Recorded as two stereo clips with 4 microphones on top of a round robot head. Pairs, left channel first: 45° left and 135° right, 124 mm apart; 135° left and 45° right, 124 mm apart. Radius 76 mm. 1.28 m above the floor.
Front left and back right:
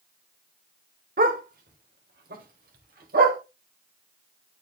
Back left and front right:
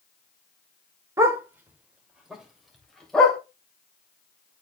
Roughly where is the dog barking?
Right.